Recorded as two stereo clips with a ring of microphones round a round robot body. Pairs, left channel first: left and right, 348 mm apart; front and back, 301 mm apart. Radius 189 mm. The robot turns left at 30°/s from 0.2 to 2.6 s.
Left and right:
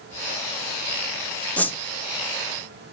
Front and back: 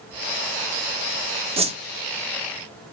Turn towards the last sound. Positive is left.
turn(degrees=135)